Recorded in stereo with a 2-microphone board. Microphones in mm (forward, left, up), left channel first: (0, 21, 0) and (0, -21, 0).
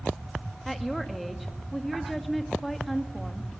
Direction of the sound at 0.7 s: 5° left (ahead or behind).